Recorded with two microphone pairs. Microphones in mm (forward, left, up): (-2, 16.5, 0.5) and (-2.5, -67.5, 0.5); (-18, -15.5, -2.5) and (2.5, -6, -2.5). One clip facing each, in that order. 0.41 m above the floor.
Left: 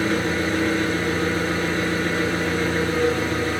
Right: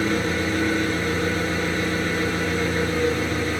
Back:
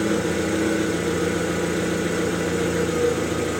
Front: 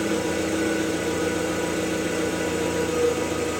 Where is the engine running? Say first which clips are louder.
Left 1 dB, back 2 dB; 145° left, 4 m.